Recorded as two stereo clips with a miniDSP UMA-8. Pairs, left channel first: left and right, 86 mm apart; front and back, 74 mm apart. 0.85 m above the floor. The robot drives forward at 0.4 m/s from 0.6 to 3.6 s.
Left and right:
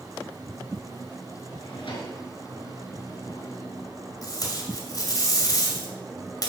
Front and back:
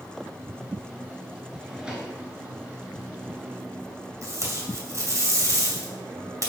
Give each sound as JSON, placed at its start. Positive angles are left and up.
{"t": 1.5, "sound": "a drawer", "azimuth_deg": 100, "distance_m": 2.5}
{"t": 4.2, "sound": "tape being pulled", "azimuth_deg": 135, "distance_m": 2.0}